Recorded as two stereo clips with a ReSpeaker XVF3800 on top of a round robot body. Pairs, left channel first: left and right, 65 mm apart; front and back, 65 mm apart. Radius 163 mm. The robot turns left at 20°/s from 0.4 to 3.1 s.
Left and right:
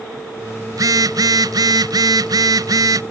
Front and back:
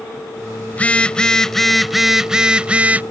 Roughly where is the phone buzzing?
Ahead right.